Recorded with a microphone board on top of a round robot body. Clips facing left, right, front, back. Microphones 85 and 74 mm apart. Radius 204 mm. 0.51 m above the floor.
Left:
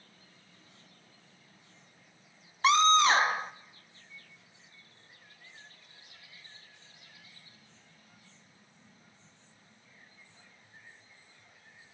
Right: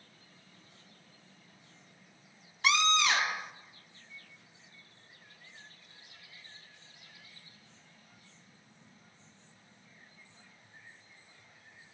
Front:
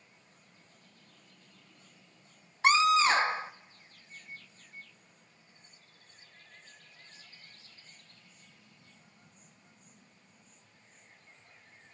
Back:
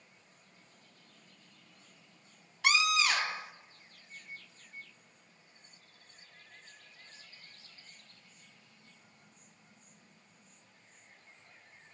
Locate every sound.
2.6 s a scream: 45° left, 1.1 m